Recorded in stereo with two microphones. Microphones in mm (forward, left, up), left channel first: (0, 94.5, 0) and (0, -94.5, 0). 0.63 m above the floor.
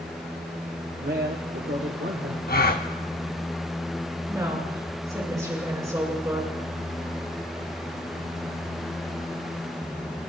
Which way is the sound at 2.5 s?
55° left (ahead or behind).